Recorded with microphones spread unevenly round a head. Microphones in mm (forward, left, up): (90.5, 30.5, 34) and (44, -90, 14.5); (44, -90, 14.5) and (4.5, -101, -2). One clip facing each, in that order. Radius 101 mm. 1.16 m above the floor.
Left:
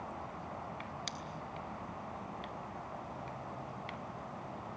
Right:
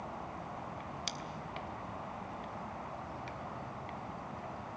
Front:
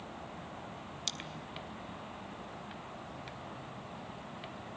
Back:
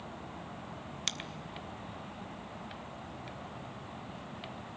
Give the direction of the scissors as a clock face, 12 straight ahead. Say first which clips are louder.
Right 1 dB, back 4 dB; 7 o'clock.